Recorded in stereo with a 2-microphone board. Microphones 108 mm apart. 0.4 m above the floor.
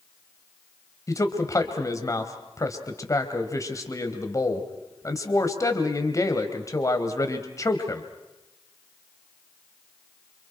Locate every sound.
1.1 s a man speaking: 30° left (ahead or behind), 2.5 m